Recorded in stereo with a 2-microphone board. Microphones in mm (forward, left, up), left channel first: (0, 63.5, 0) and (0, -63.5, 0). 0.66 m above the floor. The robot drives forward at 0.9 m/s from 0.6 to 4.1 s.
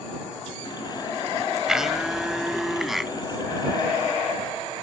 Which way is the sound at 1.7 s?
5° right (ahead or behind).